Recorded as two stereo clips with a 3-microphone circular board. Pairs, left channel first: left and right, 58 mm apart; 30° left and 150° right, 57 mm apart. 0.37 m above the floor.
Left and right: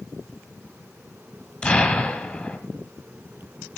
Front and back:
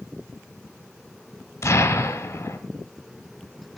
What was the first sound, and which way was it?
An explosion, 25° left.